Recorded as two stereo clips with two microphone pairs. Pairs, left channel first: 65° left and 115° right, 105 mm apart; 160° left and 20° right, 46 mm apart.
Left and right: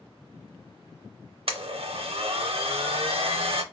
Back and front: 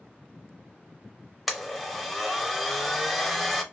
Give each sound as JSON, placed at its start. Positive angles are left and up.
{"t": 1.5, "sound": "a blender", "azimuth_deg": -110, "distance_m": 0.5}